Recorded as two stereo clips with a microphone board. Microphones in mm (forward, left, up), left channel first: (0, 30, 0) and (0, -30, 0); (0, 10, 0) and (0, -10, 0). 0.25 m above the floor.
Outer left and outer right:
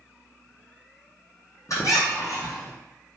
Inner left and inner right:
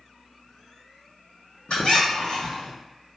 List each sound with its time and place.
1.7 s a squeak: 60° left (ahead or behind), 1.4 m